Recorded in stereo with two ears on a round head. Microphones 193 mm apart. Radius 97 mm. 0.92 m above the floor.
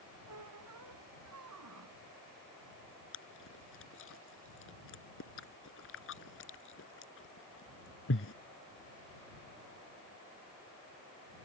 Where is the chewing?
65° left (ahead or behind).